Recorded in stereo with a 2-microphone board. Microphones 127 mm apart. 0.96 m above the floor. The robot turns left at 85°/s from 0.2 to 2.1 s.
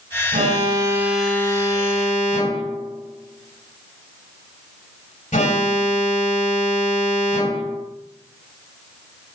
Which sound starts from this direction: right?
An alarm, at 0.3 s.